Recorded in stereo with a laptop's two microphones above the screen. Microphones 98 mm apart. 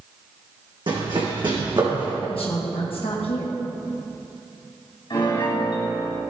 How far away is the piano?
About 3 m.